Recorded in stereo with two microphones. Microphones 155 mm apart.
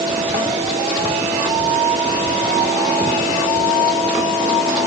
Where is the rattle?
No rattle in this recording.